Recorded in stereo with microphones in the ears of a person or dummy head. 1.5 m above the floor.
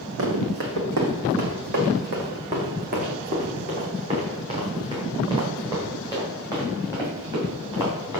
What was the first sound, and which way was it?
Running footsteps, 65° right (ahead or behind).